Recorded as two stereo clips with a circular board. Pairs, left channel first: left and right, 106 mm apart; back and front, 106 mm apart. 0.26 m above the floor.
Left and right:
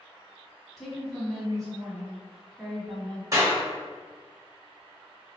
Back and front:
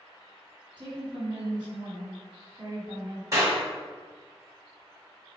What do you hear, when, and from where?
0.8 s a woman speaking: 5° left, 1.5 m
3.3 s a clap: 45° right, 1.7 m